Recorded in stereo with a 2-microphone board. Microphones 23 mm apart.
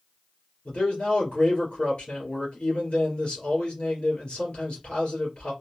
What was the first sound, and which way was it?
A man speaking, 65° left (ahead or behind).